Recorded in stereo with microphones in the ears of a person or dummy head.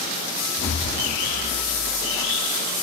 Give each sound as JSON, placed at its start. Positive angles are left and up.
{"t": 0.6, "sound": "an explosion", "side_deg": 75, "distance_m": 2.0}